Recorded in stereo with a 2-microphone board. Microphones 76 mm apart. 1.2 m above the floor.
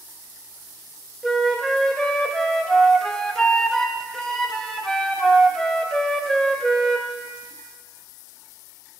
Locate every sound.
1.2 s a flute: 5° left (ahead or behind), 0.6 m